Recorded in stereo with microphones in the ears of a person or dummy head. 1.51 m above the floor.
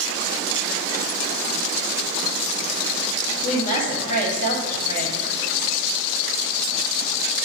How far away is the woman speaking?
About 1.1 m.